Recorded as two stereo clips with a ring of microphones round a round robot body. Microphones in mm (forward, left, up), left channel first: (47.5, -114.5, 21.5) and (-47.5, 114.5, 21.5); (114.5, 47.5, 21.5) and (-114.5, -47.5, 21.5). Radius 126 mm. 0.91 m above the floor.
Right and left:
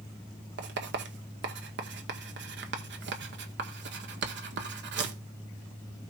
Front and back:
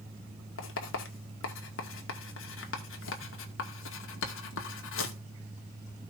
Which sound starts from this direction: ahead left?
Writing, at 0.6 s.